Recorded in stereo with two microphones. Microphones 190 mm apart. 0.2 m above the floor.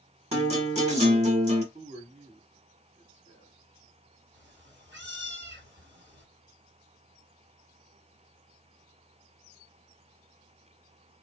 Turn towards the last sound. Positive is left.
turn(degrees=-75)  # may be behind; listen again after turning